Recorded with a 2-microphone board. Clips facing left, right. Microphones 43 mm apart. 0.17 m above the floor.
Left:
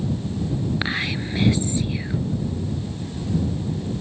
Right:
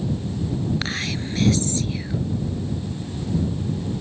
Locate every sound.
0.8 s whispering: 15° left (ahead or behind)